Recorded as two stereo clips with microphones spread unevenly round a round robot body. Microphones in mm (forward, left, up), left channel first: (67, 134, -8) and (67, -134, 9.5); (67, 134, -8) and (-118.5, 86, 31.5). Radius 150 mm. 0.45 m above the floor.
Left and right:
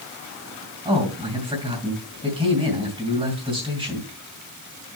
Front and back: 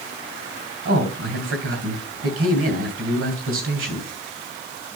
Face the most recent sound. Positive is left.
turn(degrees=-165)